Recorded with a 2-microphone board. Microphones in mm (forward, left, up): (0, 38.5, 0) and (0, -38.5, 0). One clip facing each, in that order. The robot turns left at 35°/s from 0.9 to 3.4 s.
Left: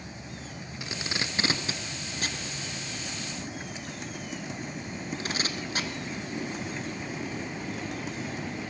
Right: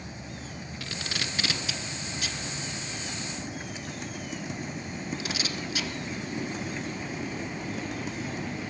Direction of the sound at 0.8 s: 20° left (ahead or behind).